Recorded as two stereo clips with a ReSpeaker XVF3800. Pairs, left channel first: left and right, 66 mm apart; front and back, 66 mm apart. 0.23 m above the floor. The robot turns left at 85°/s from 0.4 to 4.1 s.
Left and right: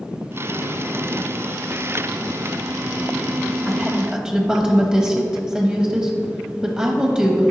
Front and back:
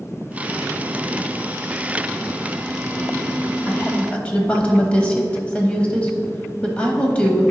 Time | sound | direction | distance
3.7 | a woman speaking | 5° left | 1.0 m